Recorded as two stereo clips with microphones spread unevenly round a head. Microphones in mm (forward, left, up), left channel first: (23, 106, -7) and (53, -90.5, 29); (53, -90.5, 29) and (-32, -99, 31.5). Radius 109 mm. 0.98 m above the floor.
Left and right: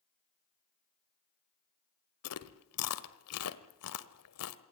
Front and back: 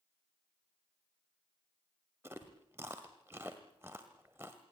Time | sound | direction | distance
2.2 | chewing | 110° left | 1.3 m